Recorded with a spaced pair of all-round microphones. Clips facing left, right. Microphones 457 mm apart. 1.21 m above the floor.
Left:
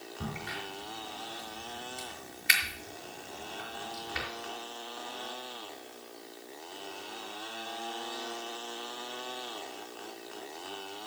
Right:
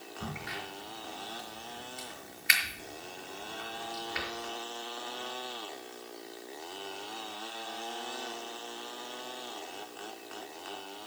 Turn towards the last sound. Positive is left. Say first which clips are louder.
# left 1 dB
turn(degrees=50)  # may be behind; listen again after turning